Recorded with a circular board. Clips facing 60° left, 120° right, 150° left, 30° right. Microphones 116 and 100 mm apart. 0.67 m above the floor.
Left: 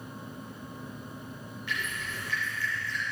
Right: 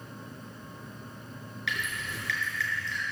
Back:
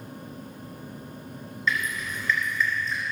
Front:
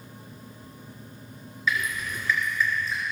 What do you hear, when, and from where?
1.7 s dripping: 115° right, 4 m